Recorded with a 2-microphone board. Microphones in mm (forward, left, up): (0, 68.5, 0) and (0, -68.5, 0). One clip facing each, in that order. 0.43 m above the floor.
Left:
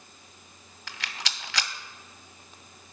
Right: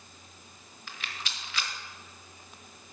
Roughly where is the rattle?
Left.